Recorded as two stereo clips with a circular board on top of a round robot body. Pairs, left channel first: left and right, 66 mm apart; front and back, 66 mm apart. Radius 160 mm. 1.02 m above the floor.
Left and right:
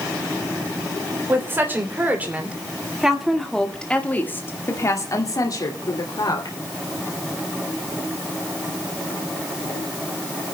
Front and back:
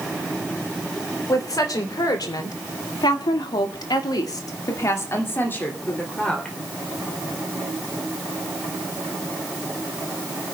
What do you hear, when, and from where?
1.3 s a woman speaking: 35° right, 3 m; by 6.6 s 75° left, 3 m